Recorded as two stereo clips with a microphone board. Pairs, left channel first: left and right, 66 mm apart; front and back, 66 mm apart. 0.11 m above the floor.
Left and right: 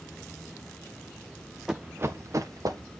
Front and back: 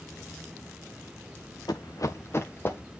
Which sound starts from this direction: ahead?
Running footsteps, at 1.7 s.